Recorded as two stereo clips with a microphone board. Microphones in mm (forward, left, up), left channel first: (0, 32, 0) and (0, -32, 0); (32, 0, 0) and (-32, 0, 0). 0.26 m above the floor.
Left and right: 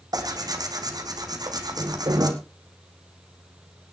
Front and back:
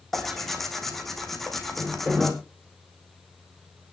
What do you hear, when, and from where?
0.1 s tearing paper: 85° right, 2.5 m